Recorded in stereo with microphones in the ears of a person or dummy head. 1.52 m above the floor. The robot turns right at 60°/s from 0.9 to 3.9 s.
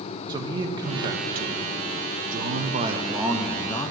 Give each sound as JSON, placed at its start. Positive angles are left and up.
{"t": 0.3, "sound": "a man speaking", "azimuth_deg": -150, "distance_m": 0.5}